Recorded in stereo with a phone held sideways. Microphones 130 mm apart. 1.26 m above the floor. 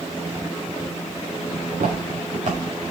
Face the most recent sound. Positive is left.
turn(degrees=-70)  # may be behind; listen again after turning